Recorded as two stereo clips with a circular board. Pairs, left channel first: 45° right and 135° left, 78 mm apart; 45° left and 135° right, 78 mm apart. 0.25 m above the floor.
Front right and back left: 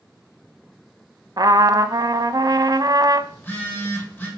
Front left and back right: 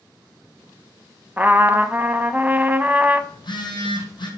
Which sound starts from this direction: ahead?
A phone buzzing, at 3.3 s.